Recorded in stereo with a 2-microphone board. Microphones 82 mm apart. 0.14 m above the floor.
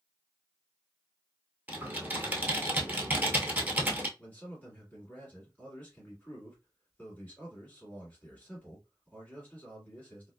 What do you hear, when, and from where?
1.7 s typing on a keyboard: 25° right (ahead or behind), 0.8 m
4.2 s a man speaking: 20° left (ahead or behind), 1.8 m